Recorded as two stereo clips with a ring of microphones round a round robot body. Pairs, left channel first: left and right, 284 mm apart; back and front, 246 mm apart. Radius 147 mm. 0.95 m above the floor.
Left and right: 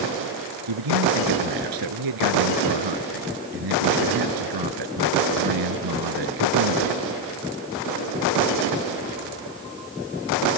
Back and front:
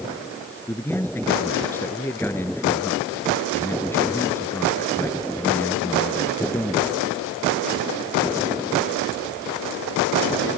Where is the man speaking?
95° right.